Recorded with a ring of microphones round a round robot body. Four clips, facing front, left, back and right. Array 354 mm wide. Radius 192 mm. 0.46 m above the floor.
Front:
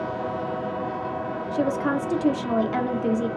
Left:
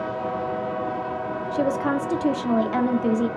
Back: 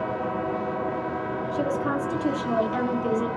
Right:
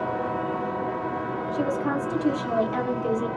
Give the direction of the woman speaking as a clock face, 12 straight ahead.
10 o'clock.